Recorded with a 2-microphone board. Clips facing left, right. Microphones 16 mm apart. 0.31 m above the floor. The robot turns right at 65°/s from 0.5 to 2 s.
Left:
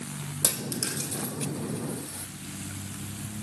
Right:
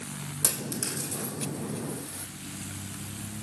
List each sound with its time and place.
0.4 s a dropped coin: 60° left (ahead or behind), 4.5 m; by 2.3 s 20° left (ahead or behind), 4.5 m